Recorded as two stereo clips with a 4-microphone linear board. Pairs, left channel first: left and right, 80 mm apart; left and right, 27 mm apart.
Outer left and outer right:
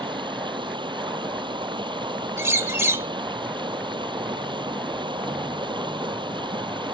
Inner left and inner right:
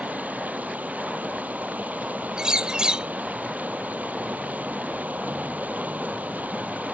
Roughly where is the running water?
Right.